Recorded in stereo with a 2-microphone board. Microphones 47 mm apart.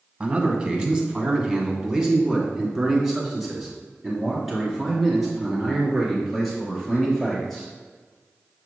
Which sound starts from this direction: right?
A man speaking, at 0.2 s.